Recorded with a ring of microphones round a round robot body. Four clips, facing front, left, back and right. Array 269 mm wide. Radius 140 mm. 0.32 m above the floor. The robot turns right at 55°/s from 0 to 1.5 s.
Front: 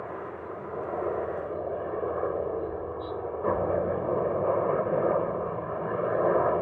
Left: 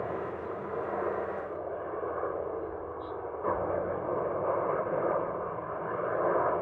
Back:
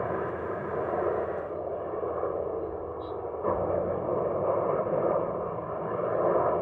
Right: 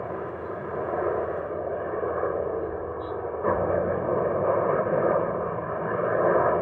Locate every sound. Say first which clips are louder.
0.0 s a helicopter: right 2 dB, back 6 dB; 165° right; by 6.6 s 80° right